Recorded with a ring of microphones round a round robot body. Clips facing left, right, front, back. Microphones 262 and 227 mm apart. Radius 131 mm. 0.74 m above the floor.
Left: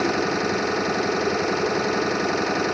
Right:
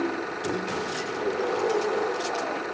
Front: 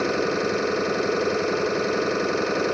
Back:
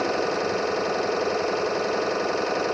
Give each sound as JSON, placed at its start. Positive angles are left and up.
{"t": 0.0, "sound": "an engine running", "azimuth_deg": 65}